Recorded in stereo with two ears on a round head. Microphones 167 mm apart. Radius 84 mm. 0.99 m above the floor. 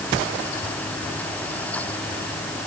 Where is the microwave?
I don't hear a microwave.